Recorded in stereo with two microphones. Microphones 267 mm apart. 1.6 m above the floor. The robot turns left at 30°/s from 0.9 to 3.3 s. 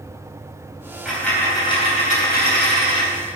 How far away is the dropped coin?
About 3.5 m.